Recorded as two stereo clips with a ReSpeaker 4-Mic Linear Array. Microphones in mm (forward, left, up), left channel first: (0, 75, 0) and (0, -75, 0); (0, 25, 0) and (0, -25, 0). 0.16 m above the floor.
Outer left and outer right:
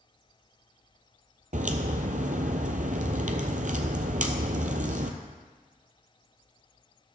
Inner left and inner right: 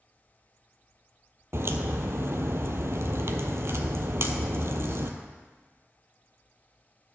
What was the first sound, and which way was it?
A crack, 60° right (ahead or behind).